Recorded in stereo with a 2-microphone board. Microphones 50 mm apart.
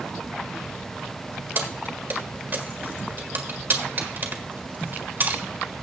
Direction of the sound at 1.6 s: 45° right (ahead or behind).